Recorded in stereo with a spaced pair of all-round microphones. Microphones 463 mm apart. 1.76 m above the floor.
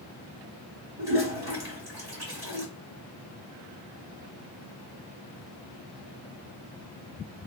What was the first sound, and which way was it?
A toilet flushing, 50° right (ahead or behind).